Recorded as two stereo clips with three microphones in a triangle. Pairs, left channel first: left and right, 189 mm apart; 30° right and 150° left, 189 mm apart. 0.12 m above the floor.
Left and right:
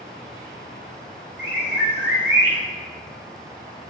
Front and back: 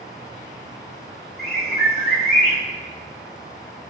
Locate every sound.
1.4 s a bird: 65° right, 4 m